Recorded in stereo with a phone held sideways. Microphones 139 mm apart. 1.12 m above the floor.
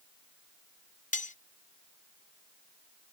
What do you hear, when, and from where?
1.1 s cutlery clinking: 65° left (ahead or behind)